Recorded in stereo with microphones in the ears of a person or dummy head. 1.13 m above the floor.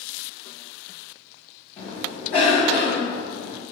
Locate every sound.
1.8 s a cough: 35° left (ahead or behind), 1.5 m